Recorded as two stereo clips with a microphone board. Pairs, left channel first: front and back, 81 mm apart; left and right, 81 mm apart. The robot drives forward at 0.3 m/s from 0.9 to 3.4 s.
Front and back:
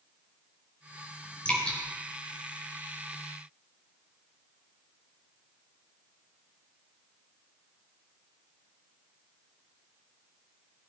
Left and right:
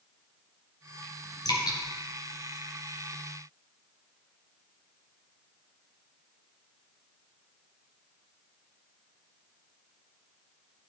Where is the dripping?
75° left, 3.5 m.